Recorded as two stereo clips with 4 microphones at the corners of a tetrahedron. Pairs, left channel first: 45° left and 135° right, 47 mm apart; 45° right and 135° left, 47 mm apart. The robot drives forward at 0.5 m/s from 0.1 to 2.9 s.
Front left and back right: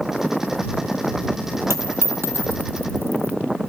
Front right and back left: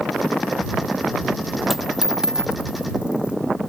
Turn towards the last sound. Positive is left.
turn(degrees=-155)